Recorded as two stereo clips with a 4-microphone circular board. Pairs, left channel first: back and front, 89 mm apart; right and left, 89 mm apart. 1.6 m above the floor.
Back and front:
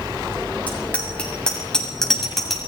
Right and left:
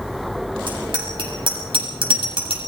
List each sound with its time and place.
0.7 s a bicycle bell: 105° left, 8 m; by 2.7 s 90° left, 7.5 m